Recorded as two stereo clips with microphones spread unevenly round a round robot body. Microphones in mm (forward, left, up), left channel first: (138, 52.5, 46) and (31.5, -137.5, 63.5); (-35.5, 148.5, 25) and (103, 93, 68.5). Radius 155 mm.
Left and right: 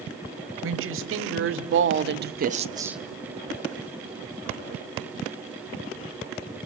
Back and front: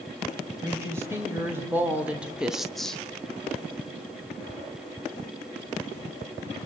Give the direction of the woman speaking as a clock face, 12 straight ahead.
3 o'clock.